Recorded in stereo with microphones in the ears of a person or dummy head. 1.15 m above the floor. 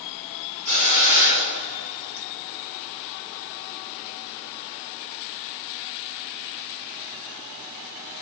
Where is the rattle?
I don't hear a rattle.